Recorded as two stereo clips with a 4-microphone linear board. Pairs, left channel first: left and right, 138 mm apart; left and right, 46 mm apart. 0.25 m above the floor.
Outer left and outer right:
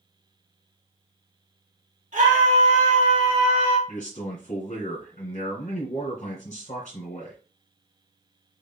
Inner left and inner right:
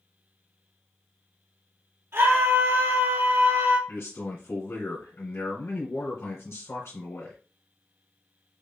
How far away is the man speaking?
About 2 m.